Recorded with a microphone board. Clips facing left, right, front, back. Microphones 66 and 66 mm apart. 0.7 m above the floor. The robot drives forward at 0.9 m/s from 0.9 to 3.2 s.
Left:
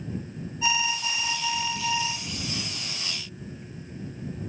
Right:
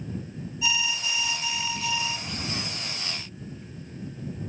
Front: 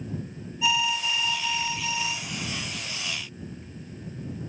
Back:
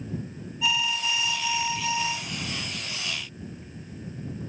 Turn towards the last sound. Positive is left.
turn(degrees=150)